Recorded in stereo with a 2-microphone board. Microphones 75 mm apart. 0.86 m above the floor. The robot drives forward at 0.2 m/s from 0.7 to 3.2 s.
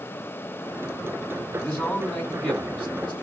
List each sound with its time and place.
1.6 s a man speaking: 10° left (ahead or behind), 2.5 m